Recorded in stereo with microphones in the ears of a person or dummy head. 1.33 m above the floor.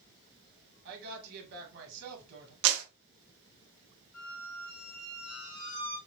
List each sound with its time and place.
0.8 s a woman speaking: 60° right (ahead or behind), 2 m
2.6 s a clap: 85° right, 1.0 m
4.1 s a squeak: 75° left (ahead or behind), 2 m